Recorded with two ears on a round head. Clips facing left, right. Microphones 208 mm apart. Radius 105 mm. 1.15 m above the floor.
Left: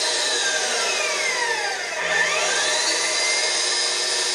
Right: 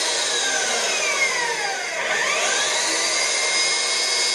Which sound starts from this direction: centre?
An engine running, at 0.0 s.